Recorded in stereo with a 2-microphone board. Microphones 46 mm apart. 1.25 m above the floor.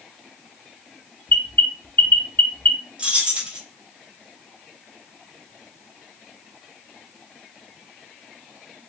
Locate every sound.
1.3 s an alarm: 50° left (ahead or behind), 0.7 m
3.0 s keys jangling: 25° right (ahead or behind), 1.1 m